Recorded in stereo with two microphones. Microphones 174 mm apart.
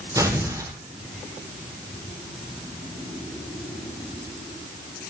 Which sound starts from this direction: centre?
Tearing paper, at 0.1 s.